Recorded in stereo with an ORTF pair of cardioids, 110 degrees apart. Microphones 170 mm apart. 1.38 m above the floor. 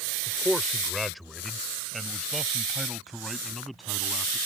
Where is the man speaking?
Straight ahead.